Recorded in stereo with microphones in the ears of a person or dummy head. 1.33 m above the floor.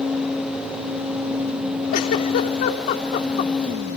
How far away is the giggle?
About 2.5 m.